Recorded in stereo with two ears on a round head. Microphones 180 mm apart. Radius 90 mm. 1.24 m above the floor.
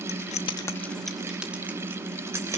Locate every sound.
0.1 s keys jangling: 55° left (ahead or behind), 0.9 m; by 2.6 s 15° right (ahead or behind), 3.5 m